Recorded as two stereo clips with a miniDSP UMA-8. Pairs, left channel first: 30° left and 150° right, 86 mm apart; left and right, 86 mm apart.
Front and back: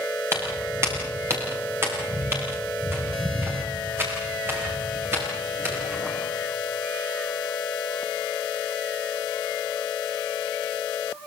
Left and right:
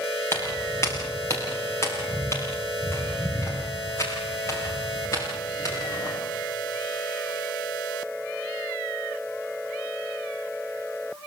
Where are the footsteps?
150° left, 7.5 m; by 6.1 s 145° left, 11 m.